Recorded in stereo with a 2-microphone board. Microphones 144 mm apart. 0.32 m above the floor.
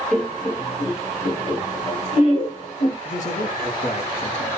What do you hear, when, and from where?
0.1 s laughter: centre (ahead or behind), 0.9 m; by 3.0 s 55° left (ahead or behind), 2.5 m
3.0 s a man speaking: 60° left (ahead or behind), 2 m